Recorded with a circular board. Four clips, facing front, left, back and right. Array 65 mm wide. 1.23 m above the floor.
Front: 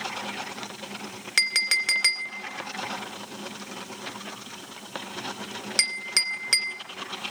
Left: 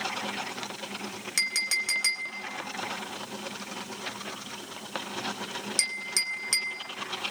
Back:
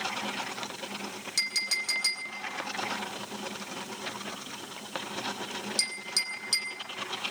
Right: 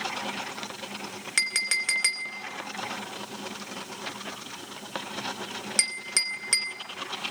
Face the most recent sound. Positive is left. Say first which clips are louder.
# right 2 dB, front 9 dB
turn(degrees=-20)